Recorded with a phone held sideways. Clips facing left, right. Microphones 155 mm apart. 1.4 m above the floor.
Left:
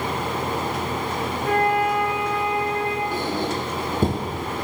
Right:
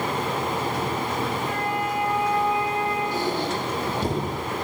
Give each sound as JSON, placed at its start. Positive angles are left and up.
{"t": 1.4, "sound": "a flute", "side_deg": 60, "distance_m": 3.0}
{"t": 3.1, "sound": "a squeak", "side_deg": 50, "distance_m": 9.0}